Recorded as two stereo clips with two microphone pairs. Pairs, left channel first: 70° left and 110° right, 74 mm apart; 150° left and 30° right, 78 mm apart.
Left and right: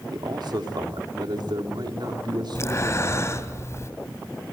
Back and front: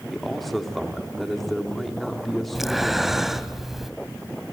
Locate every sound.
0.1 s a man speaking: 120° right, 3.5 m
2.5 s breathing: 60° left, 1.2 m